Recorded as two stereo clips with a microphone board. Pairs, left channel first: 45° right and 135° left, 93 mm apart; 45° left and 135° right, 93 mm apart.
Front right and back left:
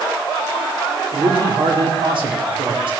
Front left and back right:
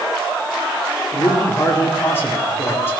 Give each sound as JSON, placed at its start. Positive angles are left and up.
{"t": 1.1, "sound": "a man speaking", "azimuth_deg": 110, "distance_m": 4.0}